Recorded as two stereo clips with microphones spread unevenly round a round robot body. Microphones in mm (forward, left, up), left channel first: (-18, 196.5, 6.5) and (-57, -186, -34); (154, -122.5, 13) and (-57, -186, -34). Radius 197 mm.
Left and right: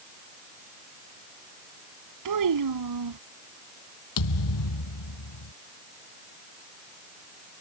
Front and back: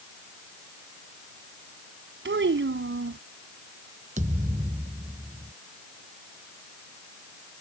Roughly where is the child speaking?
Behind right.